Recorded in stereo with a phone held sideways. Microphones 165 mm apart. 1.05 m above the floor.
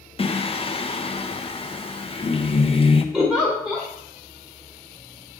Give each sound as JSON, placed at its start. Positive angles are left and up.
{"t": 0.2, "sound": "singing", "side_deg": 35, "distance_m": 0.6}
{"t": 3.1, "sound": "a giggle", "side_deg": -5, "distance_m": 2.5}